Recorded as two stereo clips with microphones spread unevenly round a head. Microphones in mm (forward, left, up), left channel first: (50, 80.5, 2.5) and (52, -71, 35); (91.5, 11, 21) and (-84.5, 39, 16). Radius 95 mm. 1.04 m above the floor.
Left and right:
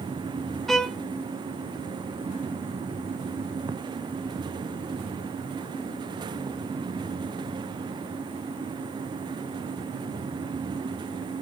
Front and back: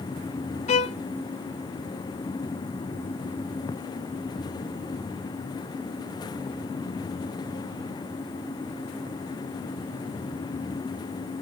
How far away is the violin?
About 0.5 m.